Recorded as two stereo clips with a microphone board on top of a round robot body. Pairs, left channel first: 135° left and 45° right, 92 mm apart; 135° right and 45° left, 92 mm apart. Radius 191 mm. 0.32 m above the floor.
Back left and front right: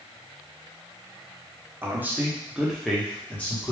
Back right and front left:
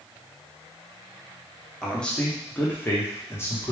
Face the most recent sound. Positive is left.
turn(degrees=-170)